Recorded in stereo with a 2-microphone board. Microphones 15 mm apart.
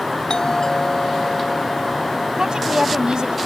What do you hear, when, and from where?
0.3 s a doorbell: 70° left (ahead or behind)
2.4 s a woman speaking: 75° right (ahead or behind)